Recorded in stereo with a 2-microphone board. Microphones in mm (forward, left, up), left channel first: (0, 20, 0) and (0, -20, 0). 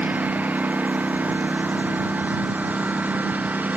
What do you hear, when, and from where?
0.0 s a lawn mower: 40° right (ahead or behind); by 3.8 s 45° right (ahead or behind)